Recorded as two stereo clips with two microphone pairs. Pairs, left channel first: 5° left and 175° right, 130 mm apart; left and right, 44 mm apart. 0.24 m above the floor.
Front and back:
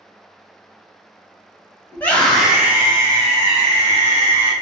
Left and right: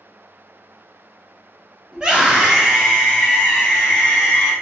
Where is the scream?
45° right, 1.0 m; by 4.5 s 160° left, 1.8 m.